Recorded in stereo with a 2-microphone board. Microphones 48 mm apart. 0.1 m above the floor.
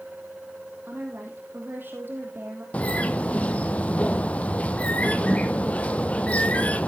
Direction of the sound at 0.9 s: 45° right (ahead or behind).